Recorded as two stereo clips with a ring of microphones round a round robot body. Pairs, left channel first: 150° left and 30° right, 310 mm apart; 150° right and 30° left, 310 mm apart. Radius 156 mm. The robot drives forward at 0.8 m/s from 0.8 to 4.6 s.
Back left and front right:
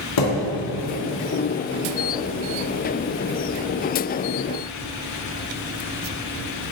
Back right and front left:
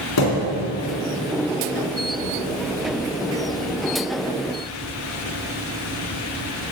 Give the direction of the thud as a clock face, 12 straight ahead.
6 o'clock.